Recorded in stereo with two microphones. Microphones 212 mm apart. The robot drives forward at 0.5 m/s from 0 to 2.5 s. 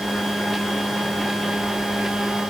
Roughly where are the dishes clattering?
I don't hear dishes clattering.